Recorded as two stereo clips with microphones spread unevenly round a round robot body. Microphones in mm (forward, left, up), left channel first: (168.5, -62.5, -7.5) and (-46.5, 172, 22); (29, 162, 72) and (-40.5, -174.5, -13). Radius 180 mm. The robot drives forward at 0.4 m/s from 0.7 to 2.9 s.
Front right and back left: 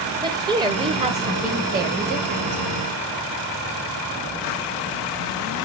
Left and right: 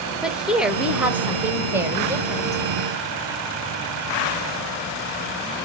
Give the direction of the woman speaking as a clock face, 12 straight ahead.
5 o'clock.